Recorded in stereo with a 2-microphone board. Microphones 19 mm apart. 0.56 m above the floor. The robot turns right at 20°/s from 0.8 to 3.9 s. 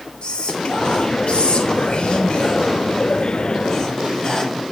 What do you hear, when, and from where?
0.2 s whispering: 85° left, 2.0 m; by 4.6 s 145° left, 2.0 m